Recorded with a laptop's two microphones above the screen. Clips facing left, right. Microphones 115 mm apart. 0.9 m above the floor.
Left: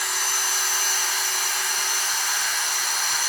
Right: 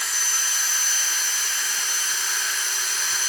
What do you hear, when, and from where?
0.0 s a machine running: 70° left (ahead or behind), 1.6 m